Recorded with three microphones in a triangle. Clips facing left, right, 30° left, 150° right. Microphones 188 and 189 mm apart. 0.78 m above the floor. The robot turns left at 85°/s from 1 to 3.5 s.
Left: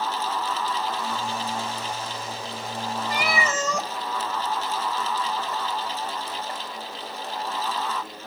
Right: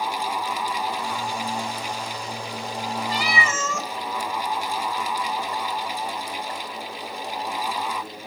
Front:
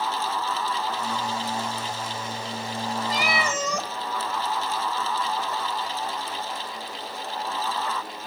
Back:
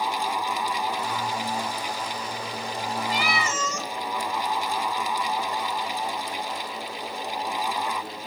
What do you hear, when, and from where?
3.1 s a cat meowing: 80° left, 1.1 m; by 3.9 s 45° left, 1.1 m